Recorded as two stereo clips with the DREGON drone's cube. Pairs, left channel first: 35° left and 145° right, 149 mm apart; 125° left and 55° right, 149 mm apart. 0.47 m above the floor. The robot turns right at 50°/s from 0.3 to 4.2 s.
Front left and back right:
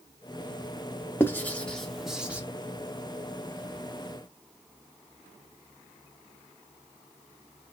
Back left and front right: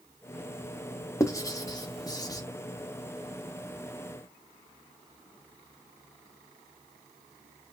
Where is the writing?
85° left, 0.8 m; by 2.4 s 150° left, 0.8 m.